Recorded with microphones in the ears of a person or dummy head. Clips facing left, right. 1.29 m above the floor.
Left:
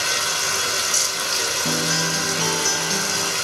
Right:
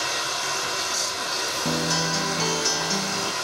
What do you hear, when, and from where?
0.0 s running water: 40° left (ahead or behind), 1.4 m
1.6 s a guitar: centre (ahead or behind), 0.6 m